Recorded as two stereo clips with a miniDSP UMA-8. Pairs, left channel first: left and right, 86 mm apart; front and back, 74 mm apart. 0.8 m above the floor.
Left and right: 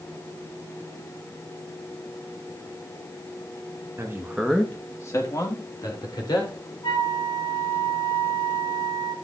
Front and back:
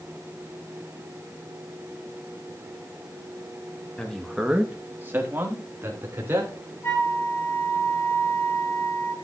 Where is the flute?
55° left, 8.5 m.